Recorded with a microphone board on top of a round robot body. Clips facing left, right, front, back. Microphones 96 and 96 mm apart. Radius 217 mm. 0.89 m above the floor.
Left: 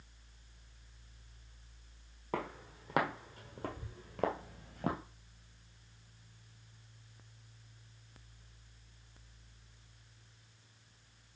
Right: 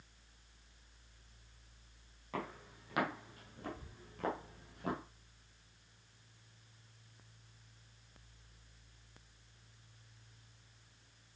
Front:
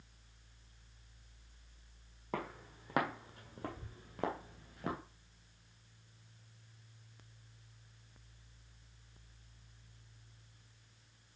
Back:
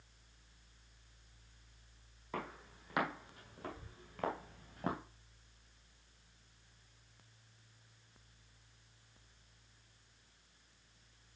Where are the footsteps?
40° left, 2 m; by 5.0 s 125° left, 0.9 m.